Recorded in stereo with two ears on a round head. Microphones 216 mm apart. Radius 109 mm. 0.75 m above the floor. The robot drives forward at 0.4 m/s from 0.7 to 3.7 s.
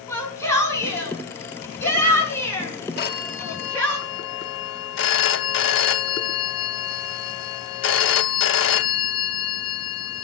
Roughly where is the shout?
Centre.